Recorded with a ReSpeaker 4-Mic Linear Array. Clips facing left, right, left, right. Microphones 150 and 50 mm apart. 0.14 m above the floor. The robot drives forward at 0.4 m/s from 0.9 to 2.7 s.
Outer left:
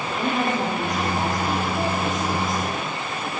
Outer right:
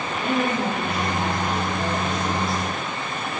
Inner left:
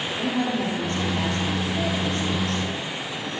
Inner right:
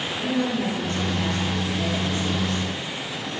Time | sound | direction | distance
0.2 | a woman speaking | 45° left (ahead or behind) | 3 m